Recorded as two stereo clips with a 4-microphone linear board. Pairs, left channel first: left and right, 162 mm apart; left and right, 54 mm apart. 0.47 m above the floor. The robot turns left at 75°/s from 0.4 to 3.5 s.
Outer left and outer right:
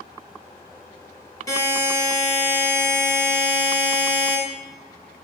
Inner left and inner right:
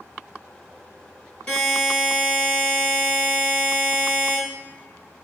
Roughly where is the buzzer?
Ahead.